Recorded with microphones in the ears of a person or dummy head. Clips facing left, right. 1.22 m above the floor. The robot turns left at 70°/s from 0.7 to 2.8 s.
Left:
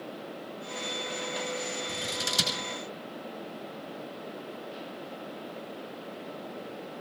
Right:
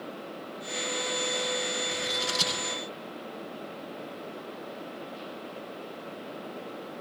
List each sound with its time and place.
1.9 s scissors: 40° left (ahead or behind), 6.5 m; by 2.6 s 90° left, 6.5 m